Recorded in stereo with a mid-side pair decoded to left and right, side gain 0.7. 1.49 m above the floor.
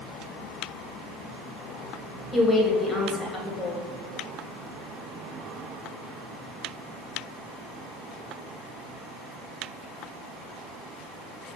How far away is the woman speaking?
About 1.0 m.